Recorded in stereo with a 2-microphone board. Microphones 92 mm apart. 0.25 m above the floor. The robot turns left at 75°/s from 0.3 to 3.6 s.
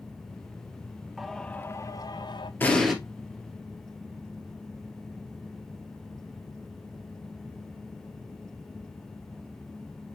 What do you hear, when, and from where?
1.2 s singing: 175° right, 0.8 m; by 2.5 s 85° left, 0.8 m
2.6 s an explosion: 20° left (ahead or behind), 2 m; by 3.0 s 5° right (ahead or behind), 2 m